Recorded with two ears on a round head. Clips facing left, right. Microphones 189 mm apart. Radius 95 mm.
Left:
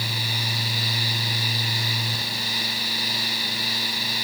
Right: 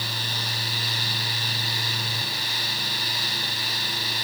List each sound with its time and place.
Only background noise.